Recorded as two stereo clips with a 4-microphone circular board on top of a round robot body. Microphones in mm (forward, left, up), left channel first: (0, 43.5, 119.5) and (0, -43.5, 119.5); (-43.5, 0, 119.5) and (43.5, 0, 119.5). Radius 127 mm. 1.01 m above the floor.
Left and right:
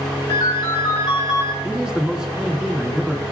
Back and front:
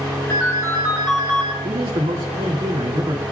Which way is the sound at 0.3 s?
125° left.